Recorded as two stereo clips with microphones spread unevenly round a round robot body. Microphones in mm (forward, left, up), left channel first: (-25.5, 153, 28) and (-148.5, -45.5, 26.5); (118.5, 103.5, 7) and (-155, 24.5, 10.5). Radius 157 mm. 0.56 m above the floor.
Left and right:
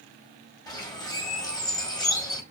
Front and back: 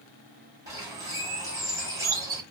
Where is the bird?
125° left, 1.2 m.